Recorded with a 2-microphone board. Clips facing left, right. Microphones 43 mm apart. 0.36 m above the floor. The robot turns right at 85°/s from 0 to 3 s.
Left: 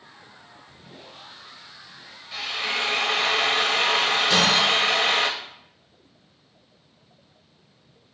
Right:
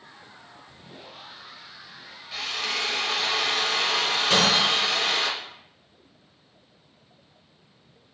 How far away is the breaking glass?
About 1.7 m.